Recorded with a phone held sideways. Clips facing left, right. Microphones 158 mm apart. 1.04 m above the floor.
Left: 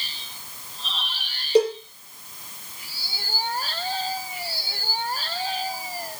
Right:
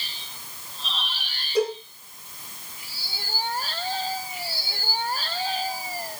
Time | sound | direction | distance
1.6 | a cowbell | 80° left | 7.5 m